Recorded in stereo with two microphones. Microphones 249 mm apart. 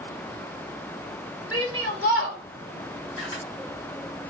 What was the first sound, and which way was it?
A shout, 70° left (ahead or behind).